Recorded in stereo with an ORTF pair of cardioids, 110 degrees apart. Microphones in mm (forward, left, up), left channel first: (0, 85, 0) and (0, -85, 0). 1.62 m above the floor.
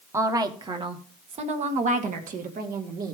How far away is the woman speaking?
About 1.4 m.